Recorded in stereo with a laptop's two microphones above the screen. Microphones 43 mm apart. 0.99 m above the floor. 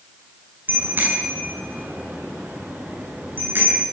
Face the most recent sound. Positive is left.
turn(degrees=-60)  # may be behind; listen again after turning